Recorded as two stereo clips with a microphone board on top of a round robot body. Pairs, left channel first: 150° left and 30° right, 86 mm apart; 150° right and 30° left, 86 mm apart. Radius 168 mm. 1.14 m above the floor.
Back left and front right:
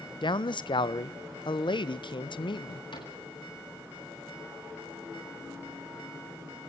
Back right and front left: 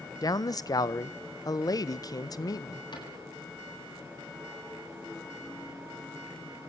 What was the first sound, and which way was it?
A man speaking, 170° left.